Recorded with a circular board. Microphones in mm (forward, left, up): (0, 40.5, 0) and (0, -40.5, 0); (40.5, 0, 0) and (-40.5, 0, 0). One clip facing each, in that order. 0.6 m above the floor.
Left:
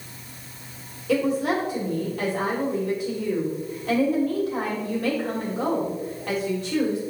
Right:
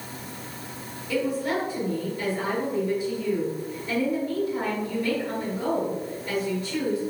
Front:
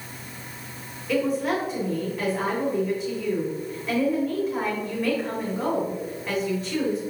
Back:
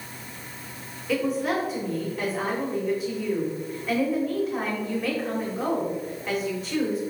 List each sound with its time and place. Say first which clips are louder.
1.1 s a woman speaking: left 4 dB, front 1 dB; 90° left, 2 m